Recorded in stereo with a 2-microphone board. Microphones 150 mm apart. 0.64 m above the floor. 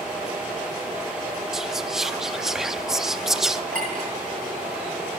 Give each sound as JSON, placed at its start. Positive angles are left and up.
{"t": 1.5, "sound": "whispering", "side_deg": 0, "distance_m": 0.5}
{"t": 3.7, "sound": "a clink", "side_deg": -60, "distance_m": 8.0}